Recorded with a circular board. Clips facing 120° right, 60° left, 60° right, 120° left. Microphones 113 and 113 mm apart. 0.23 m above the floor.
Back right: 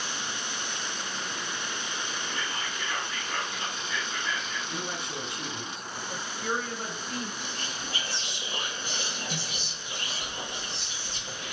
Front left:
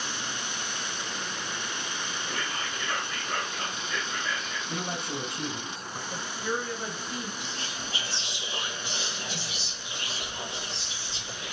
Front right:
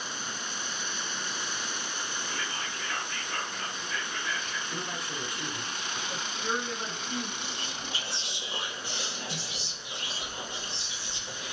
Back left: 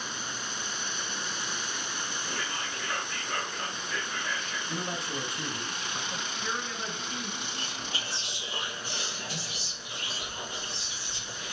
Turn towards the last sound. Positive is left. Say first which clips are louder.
# even, even
turn(degrees=-105)